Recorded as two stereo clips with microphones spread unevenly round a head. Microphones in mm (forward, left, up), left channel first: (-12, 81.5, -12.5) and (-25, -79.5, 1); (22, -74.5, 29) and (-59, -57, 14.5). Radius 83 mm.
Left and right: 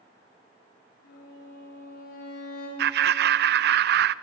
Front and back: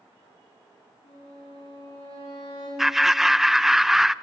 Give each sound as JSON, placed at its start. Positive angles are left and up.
{"t": 1.0, "sound": "a violin", "azimuth_deg": 40, "distance_m": 6.0}
{"t": 2.8, "sound": "laughter", "azimuth_deg": -100, "distance_m": 0.5}